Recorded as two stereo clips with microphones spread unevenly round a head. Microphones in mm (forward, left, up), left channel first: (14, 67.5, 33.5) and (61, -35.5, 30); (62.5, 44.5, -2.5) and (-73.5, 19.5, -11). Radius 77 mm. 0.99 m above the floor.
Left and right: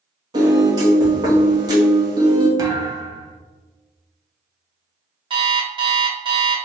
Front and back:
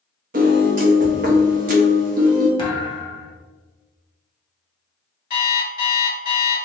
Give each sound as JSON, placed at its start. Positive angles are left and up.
{"t": 0.3, "sound": "a piano", "azimuth_deg": -130, "distance_m": 0.7}
{"t": 2.6, "sound": "a thud", "azimuth_deg": -20, "distance_m": 0.7}
{"t": 5.3, "sound": "an alarm clock", "azimuth_deg": -20, "distance_m": 1.3}